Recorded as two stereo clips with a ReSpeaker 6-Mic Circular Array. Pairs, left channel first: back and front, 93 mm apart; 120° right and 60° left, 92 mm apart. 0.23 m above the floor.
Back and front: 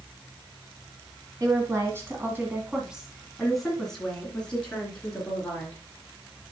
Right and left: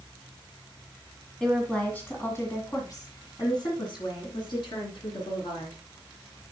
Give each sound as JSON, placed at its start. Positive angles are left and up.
{"t": 1.4, "sound": "a woman speaking", "azimuth_deg": -40, "distance_m": 2.0}